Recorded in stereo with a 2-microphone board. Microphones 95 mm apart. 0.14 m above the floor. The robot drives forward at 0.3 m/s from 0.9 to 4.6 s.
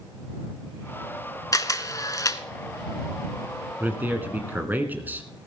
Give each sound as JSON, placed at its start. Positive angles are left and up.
{"t": 1.5, "sound": "a camera shutter", "side_deg": 40, "distance_m": 0.9}
{"t": 3.8, "sound": "a man speaking", "side_deg": -20, "distance_m": 1.7}